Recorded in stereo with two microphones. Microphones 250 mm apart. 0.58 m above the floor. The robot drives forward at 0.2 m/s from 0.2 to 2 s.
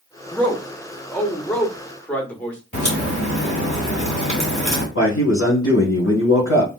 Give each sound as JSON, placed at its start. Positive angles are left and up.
{"t": 0.3, "sound": "a man speaking", "side_deg": 5, "distance_m": 0.9}
{"t": 2.7, "sound": "a crack", "side_deg": 45, "distance_m": 2.5}
{"t": 5.0, "sound": "a man speaking", "side_deg": 50, "distance_m": 2.0}